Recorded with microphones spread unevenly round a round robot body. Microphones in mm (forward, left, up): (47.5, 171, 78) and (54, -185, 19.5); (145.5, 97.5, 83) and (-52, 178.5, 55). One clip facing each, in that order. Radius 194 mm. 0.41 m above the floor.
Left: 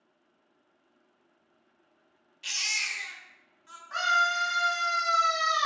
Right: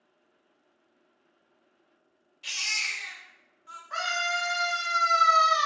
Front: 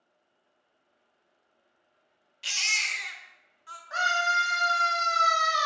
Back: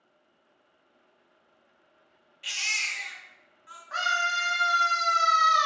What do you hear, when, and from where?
2.4 s a baby crying: 10° left, 0.5 m
3.9 s a scream: 25° right, 1.1 m